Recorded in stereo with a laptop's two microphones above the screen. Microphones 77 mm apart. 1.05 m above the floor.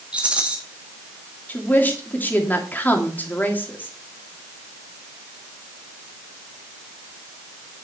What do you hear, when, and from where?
0.1 s a rattle: 15° right (ahead or behind), 1.4 m
1.5 s a woman speaking: 25° left (ahead or behind), 2.5 m